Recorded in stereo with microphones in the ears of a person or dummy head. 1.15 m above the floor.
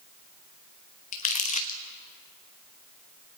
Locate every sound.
1.1 s crumpling: 45° left (ahead or behind), 0.9 m